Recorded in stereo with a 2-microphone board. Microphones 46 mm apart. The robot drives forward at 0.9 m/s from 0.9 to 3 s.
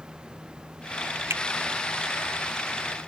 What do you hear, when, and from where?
1.3 s a finger snap: 75° right (ahead or behind)